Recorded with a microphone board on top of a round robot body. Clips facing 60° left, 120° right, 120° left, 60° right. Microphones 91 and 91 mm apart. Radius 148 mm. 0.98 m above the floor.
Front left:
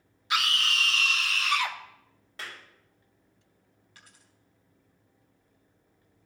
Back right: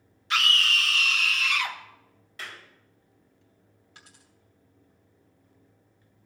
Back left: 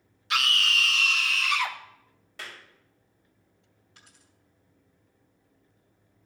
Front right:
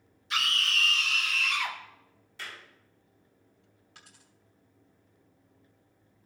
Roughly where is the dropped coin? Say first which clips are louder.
Back right 2 dB, front right 2 dB; ahead right.